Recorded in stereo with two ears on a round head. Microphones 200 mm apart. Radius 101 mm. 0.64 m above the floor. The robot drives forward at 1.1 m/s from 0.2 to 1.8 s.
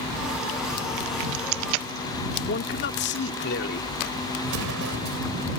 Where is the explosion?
65° right (ahead or behind).